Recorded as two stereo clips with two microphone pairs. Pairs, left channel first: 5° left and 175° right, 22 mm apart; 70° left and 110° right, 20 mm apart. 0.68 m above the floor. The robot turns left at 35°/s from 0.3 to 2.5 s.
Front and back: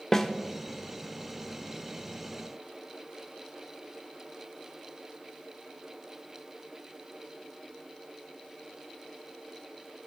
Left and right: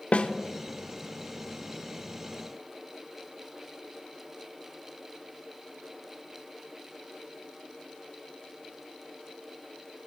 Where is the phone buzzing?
I don't hear a phone buzzing.